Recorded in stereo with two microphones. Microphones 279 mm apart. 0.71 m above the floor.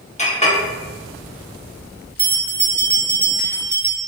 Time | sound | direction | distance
0.2 | a clink | 25° left (ahead or behind) | 1.0 m
2.2 | a bell | 35° right (ahead or behind) | 1.0 m